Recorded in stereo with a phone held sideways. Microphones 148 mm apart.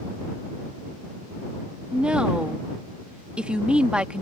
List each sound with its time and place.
1.9 s a woman speaking: 5° right (ahead or behind)